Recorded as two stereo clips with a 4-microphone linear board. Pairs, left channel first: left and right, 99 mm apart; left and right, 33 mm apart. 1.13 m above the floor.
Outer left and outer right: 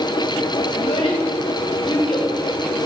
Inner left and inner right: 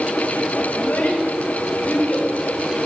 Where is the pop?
I don't hear a pop.